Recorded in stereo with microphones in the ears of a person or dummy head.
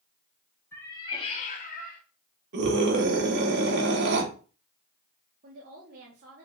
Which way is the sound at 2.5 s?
60° right (ahead or behind).